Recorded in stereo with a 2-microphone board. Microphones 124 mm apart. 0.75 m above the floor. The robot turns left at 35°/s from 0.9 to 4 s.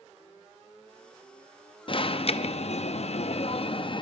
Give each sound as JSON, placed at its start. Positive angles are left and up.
{"t": 1.9, "sound": "an alarm", "azimuth_deg": 125, "distance_m": 0.6}